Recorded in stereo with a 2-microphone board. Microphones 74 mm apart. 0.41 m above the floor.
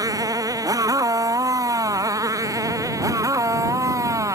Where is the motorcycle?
60° right (ahead or behind); by 4.4 s 50° right (ahead or behind).